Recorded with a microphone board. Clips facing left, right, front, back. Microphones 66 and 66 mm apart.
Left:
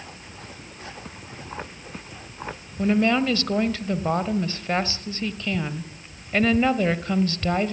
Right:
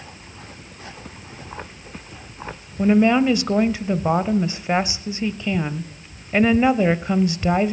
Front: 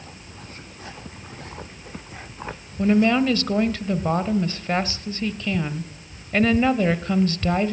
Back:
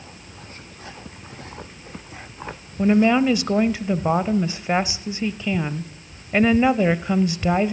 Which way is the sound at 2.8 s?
125° right.